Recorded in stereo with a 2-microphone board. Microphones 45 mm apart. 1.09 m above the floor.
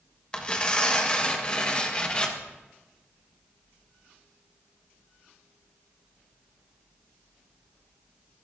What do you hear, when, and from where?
0.3 s tearing paper: 25° left (ahead or behind), 1.1 m